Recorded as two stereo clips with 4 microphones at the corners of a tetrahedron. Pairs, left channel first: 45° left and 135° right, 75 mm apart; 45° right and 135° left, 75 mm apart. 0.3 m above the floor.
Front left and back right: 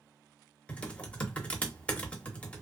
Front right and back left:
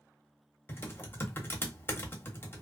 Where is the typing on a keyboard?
20° right, 0.8 m.